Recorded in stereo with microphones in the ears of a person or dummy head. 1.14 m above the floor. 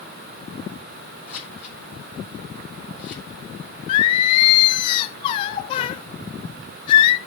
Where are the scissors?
15° left (ahead or behind), 8.5 m.